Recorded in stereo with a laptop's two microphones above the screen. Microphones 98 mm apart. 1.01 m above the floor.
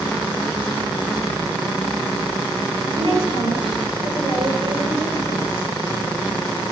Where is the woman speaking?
60° right (ahead or behind), 3.5 m.